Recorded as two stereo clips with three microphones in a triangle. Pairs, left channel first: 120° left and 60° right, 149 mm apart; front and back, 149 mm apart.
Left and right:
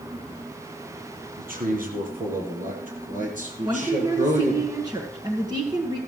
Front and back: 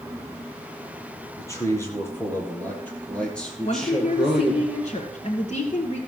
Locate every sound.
1.4 s a man speaking: 70° right, 4 m; by 4.7 s 95° right, 4.5 m
3.6 s a woman speaking: 10° right, 1.7 m